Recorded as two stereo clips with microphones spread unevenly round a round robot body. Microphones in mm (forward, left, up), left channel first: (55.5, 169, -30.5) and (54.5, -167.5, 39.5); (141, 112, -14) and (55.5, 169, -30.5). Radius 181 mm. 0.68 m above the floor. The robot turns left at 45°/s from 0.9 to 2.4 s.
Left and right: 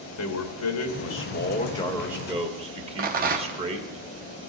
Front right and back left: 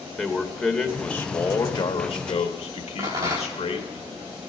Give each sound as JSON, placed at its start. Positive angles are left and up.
{"t": 0.2, "sound": "a man speaking", "azimuth_deg": 55, "distance_m": 1.9}
{"t": 3.0, "sound": "a rattle", "azimuth_deg": -160, "distance_m": 0.8}